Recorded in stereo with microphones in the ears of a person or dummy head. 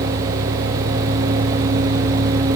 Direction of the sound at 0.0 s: 85° right.